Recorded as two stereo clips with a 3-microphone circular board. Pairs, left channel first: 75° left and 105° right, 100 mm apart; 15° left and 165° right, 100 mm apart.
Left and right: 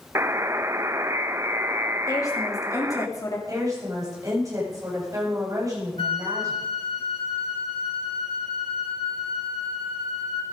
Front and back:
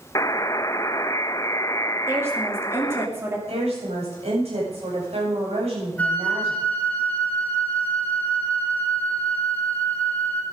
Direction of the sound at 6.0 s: 90° left.